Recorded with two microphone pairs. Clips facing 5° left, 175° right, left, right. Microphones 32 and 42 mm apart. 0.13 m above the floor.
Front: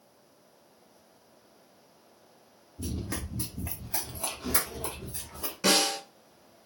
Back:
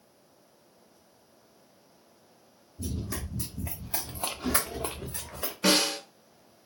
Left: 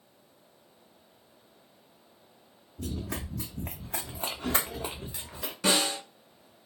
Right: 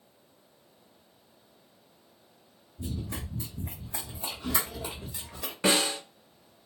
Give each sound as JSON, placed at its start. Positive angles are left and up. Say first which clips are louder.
{"t": 2.8, "sound": "running footsteps", "louder": "even, left 1 dB", "azimuth_deg": 70, "distance_m": 1.3}
{"t": 5.6, "sound": "a snare drum", "louder": "back 1 dB, right 1 dB", "azimuth_deg": -110, "distance_m": 1.1}